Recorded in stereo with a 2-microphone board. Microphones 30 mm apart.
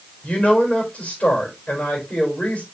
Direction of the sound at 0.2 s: 45° left (ahead or behind).